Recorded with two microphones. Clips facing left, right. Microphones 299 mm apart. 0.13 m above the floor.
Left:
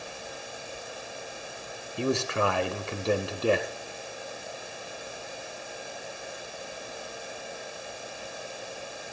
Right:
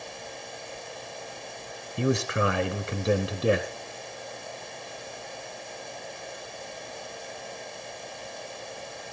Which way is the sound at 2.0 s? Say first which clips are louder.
Right 2 dB; 20° right (ahead or behind).